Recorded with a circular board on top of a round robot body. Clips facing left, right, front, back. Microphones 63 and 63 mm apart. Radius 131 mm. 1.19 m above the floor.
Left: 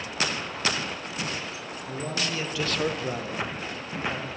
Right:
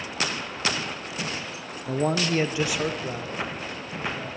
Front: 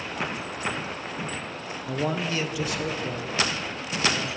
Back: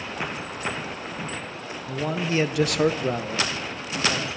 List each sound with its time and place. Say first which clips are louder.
1.9 s a man speaking: right 8 dB, even; 70° right, 0.9 m; by 4.4 s 155° left, 3 m